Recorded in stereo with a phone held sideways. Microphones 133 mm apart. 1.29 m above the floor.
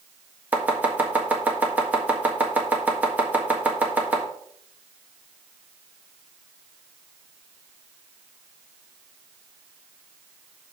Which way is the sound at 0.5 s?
10° right (ahead or behind).